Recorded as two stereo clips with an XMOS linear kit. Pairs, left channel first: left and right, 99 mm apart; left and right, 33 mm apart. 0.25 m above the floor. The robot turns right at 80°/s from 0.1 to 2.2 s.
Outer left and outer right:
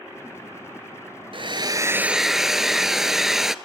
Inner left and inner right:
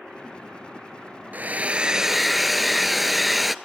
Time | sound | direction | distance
1.3 | a hair dryer | 75° right | 0.6 m